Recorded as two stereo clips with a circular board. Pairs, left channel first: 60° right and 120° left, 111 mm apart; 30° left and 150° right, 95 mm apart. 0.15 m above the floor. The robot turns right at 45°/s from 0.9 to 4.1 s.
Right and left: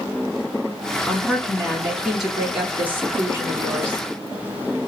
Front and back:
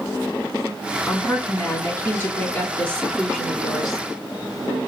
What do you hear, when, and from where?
1.1 s a woman speaking: 5° right, 1.1 m; by 4.0 s 125° left, 1.1 m